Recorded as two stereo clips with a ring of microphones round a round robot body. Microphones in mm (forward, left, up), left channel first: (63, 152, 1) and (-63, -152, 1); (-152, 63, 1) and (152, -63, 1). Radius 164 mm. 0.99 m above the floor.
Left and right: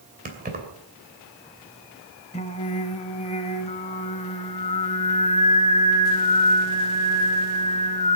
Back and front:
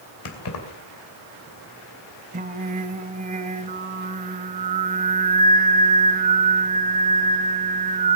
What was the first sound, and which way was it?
Keys jangling, 175° right.